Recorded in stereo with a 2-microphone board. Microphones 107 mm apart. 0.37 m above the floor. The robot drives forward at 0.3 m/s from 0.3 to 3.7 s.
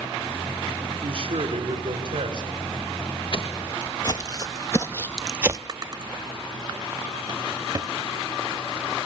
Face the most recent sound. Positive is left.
turn(degrees=-35)  # may be behind; listen again after turning